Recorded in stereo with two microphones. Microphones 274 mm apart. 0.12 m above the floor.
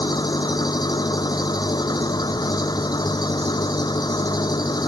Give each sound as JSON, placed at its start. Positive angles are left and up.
{"t": 0.0, "sound": "an engine running", "side_deg": 15}